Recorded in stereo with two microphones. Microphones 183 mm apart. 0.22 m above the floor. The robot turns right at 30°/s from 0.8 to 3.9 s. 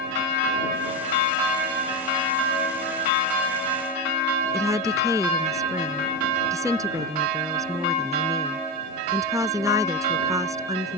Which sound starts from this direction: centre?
A woman speaking, at 4.5 s.